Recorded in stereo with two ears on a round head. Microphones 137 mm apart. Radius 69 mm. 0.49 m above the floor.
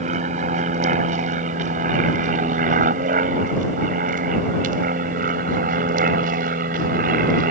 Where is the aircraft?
45° right (ahead or behind); by 7.5 s 60° right (ahead or behind).